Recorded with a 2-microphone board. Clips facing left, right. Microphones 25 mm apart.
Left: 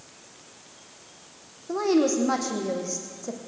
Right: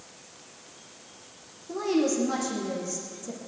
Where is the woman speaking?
35° left (ahead or behind), 4.5 m.